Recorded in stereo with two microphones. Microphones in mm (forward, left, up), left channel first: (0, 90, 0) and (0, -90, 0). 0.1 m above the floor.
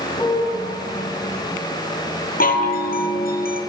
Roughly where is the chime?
Left.